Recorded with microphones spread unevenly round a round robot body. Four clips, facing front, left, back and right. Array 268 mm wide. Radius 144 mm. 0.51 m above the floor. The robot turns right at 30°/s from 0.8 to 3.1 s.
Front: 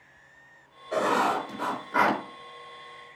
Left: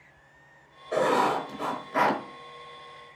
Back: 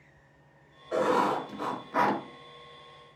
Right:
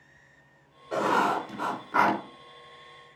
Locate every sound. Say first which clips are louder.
0.9 s writing: left 1 dB, front 1 dB; 110° right, 4 m; by 2.2 s 70° right, 4 m